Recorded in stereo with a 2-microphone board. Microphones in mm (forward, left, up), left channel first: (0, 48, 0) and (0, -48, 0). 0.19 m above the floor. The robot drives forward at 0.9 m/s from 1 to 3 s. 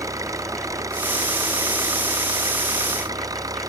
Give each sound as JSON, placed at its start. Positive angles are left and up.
{"t": 0.0, "sound": "an engine running", "side_deg": -35}